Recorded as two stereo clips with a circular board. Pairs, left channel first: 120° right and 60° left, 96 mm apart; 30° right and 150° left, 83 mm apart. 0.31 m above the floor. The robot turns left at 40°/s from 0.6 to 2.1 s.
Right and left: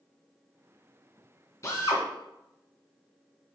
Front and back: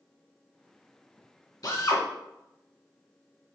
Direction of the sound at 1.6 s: 65° right.